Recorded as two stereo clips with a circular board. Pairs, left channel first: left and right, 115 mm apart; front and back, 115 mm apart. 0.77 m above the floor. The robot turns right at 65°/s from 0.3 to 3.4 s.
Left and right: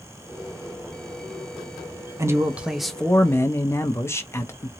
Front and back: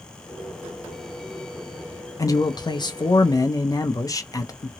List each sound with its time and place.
2.2 s a man speaking: 40° right, 0.5 m; by 4.7 s 35° left, 0.5 m